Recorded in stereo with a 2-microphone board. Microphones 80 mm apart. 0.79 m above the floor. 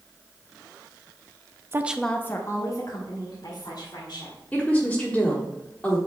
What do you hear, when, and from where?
1.7 s a woman speaking: 30° right (ahead or behind), 0.5 m; by 4.4 s 65° left (ahead or behind), 3 m
4.5 s a woman speaking: 15° left (ahead or behind), 1.5 m